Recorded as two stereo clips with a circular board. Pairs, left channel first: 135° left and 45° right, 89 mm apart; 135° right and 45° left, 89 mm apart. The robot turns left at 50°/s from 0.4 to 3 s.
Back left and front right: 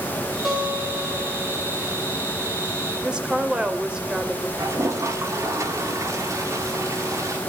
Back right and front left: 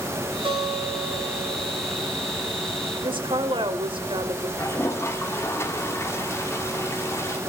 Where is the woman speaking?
35° left, 2.5 m.